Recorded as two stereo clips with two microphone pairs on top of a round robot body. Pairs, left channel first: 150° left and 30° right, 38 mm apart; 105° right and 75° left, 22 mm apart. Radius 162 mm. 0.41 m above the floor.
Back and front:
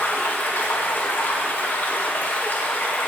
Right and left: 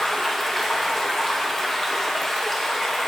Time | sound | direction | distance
0.0 | running water | straight behind | 2 m